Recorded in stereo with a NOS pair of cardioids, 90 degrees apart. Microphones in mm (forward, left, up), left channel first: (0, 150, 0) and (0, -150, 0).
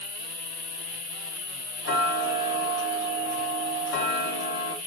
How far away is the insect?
About 1.1 m.